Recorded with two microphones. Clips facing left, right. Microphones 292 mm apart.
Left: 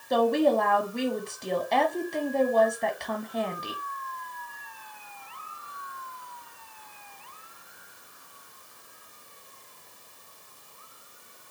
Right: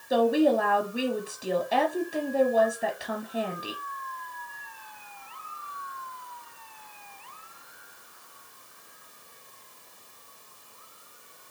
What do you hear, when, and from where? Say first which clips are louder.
0.1 s a woman speaking: right 1 dB; 5° right (ahead or behind), 1.1 m